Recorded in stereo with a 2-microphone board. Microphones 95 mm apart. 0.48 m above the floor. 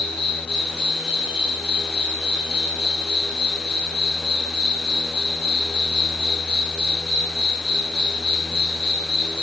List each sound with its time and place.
0.0 s an insect: 75° left (ahead or behind), 1.1 m